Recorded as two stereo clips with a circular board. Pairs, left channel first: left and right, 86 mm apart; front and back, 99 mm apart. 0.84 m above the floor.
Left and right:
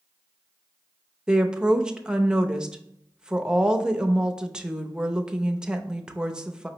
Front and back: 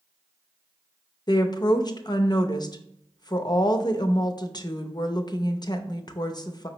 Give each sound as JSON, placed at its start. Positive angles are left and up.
{"t": 1.3, "sound": "a woman speaking", "azimuth_deg": -15, "distance_m": 0.5}